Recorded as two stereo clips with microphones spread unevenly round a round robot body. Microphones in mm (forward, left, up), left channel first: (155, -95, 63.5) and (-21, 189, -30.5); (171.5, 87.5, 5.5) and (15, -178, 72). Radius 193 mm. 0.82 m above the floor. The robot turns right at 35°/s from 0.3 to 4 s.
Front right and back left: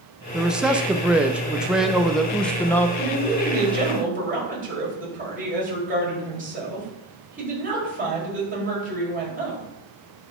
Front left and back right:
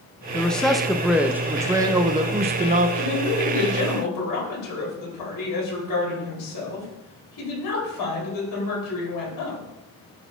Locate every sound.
0.3 s a man speaking: 95° left, 0.5 m; by 2.9 s 175° right, 0.5 m
3.0 s a woman speaking: 25° left, 4 m; by 9.7 s 60° left, 4 m